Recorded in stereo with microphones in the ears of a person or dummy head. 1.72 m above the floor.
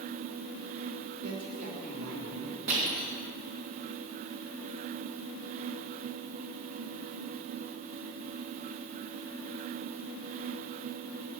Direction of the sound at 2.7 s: 65° right (ahead or behind).